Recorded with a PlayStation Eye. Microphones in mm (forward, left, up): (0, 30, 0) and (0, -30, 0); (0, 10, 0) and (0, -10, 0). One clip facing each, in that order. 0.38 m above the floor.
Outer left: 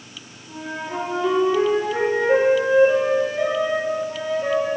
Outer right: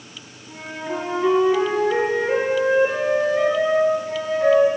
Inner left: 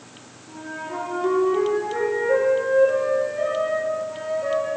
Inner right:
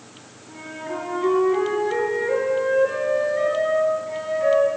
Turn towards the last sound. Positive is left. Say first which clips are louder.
# even, even
turn(degrees=-75)  # may be behind; listen again after turning